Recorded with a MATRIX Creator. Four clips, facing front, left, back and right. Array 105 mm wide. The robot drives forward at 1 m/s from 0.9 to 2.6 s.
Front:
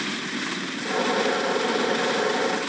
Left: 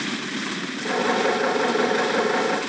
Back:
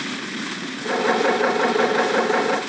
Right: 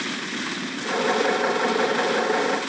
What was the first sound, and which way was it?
Only background noise.